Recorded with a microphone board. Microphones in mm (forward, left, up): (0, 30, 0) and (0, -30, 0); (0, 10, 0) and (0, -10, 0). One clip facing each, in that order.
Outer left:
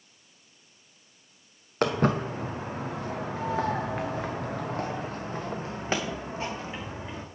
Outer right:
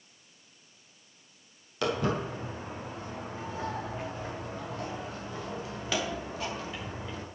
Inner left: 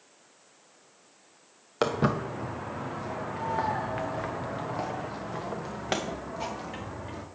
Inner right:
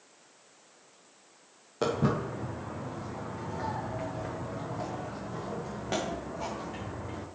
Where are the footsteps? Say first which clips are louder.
Outer left 4 dB, inner left 2 dB; 50° left (ahead or behind), 1.6 m; by 7.2 s 20° left (ahead or behind), 2.5 m.